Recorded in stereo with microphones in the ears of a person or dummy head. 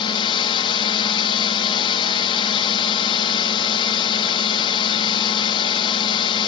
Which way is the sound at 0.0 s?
30° left (ahead or behind).